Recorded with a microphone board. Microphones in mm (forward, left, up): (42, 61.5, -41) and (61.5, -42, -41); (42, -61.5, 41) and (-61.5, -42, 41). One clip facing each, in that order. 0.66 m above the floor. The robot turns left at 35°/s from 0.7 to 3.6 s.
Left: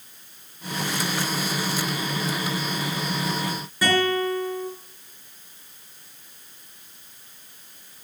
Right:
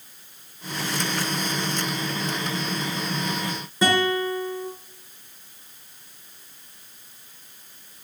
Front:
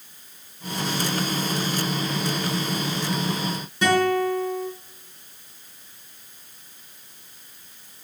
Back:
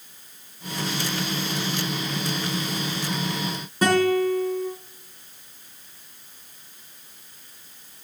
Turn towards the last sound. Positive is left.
turn(degrees=-145)